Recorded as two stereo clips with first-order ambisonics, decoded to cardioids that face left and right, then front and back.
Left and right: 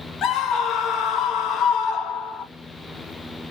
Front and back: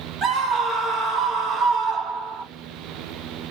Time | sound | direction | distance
0.2 | a scream | 125° left | 0.7 m